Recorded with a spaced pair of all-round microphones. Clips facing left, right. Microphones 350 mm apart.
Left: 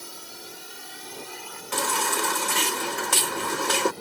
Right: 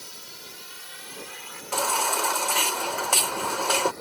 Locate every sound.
0.0 s a drone: 65° left (ahead or behind); by 4.0 s 45° left (ahead or behind)
1.7 s a baby crying: 30° left (ahead or behind)